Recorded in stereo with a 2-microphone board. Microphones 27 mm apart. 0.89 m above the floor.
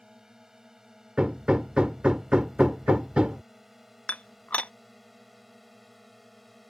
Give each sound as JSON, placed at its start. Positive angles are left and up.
{"t": 0.0, "sound": "a drone", "side_deg": -25}
{"t": 1.2, "sound": "hammering", "side_deg": -40}
{"t": 4.1, "sound": "dishes clattering", "side_deg": 70}